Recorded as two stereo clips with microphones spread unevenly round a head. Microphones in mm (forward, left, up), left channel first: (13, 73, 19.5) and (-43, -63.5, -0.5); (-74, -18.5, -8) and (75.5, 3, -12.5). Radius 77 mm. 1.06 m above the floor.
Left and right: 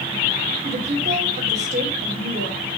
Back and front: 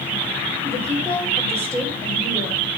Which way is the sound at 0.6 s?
60° right.